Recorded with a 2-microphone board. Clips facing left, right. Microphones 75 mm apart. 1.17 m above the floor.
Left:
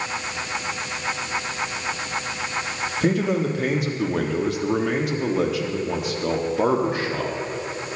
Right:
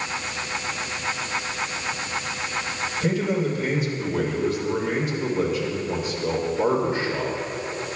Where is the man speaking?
55° left (ahead or behind), 2 m; by 7.3 s 60° left (ahead or behind), 2.5 m.